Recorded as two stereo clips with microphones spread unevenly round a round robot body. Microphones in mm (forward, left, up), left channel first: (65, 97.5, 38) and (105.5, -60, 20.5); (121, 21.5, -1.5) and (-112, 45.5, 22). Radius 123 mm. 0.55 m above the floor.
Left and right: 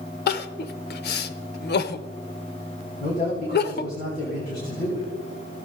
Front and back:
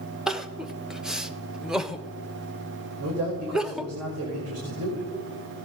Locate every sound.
0.3 s crying: 85° left, 0.6 m
3.0 s a man speaking: 160° left, 2 m